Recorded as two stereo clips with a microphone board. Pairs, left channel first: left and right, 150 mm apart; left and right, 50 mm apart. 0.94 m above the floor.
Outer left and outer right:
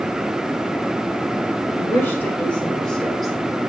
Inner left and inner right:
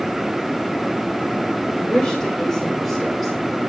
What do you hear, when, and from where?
1.8 s a woman speaking: 20° left (ahead or behind), 3 m; by 3.3 s centre (ahead or behind), 3.5 m